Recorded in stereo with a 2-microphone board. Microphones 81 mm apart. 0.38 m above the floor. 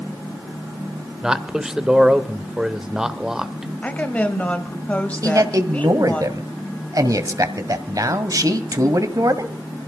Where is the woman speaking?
20° left (ahead or behind), 2 m.